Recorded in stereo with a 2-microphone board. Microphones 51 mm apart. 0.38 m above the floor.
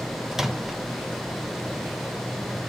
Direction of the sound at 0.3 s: 10° right (ahead or behind).